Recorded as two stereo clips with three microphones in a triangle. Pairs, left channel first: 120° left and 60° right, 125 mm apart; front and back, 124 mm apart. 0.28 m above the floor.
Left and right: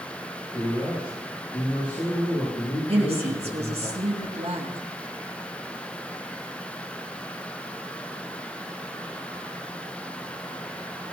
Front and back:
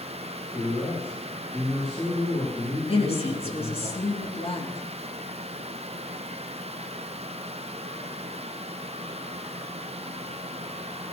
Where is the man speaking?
65° left, 8 m.